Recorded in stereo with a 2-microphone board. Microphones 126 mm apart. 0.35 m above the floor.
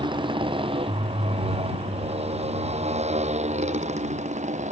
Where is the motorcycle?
40° right (ahead or behind); by 4.7 s 65° right (ahead or behind).